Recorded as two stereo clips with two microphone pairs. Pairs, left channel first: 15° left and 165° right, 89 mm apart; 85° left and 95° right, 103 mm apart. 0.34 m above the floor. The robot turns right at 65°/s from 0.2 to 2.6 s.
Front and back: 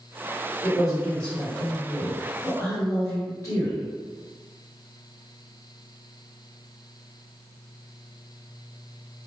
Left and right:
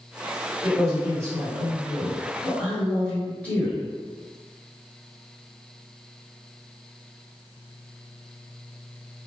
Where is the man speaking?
105° right, 1.2 m; by 3.9 s 20° left, 1.2 m.